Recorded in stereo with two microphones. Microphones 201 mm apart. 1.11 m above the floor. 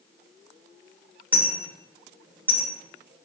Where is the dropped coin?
10° right (ahead or behind), 0.8 m.